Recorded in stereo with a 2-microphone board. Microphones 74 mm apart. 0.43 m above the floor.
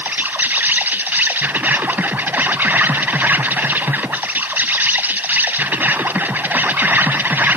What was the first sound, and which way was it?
An insect, 25° right (ahead or behind).